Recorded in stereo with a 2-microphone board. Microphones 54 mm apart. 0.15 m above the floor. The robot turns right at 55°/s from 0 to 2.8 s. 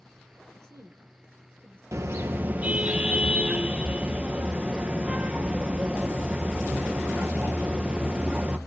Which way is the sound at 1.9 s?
70° right.